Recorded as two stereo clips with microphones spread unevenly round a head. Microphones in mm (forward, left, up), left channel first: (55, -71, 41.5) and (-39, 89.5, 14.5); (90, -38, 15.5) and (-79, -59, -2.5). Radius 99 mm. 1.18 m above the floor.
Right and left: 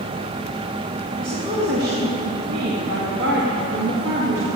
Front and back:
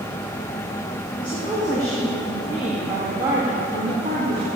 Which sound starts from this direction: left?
A woman speaking, at 1.2 s.